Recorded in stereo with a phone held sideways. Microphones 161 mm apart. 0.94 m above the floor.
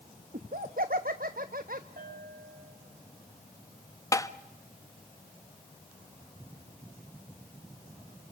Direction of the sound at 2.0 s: 65° right (ahead or behind).